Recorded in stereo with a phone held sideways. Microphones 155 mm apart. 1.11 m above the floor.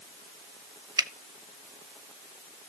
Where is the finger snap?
25° right (ahead or behind), 0.8 m.